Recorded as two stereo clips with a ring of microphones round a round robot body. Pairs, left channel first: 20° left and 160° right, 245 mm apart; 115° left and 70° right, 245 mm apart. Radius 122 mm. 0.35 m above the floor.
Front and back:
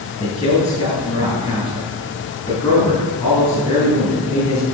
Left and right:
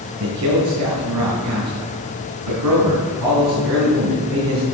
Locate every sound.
0.2 s a man speaking: 45° right, 5 m